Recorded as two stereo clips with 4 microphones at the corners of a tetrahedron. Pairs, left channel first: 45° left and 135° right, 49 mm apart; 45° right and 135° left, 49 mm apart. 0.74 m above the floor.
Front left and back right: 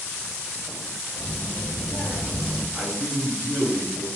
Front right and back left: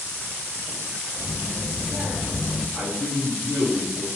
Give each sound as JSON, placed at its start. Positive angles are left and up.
{"t": 1.1, "sound": "a child speaking", "azimuth_deg": 30, "distance_m": 1.9}
{"t": 2.7, "sound": "a man speaking", "azimuth_deg": -15, "distance_m": 1.2}